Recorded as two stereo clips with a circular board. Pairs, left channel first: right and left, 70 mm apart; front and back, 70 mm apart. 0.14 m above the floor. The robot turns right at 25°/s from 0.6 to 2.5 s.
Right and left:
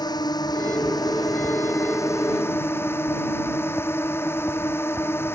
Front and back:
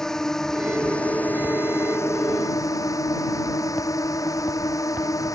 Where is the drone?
80° right; by 5.4 s 35° right.